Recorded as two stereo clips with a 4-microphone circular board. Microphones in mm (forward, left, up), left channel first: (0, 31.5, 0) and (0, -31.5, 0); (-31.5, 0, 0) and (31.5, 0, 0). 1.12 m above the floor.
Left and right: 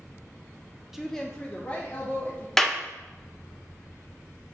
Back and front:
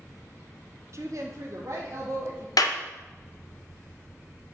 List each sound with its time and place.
0.9 s a woman speaking: 10° right, 0.5 m; by 2.5 s 30° left, 1.7 m
2.6 s a clap: 175° left, 0.7 m